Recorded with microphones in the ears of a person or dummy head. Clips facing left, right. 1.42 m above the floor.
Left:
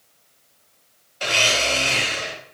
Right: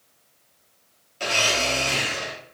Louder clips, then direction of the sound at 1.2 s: Left 1 dB; 35° right (ahead or behind).